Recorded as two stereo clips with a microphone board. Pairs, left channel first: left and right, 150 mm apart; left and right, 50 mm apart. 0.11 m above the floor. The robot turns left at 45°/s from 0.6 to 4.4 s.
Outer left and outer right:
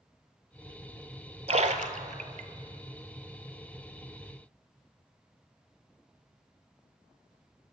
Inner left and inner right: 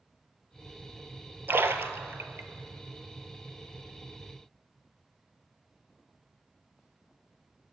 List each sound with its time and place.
1.5 s a splash: 50° right (ahead or behind), 0.5 m; by 2.5 s 60° right (ahead or behind), 0.5 m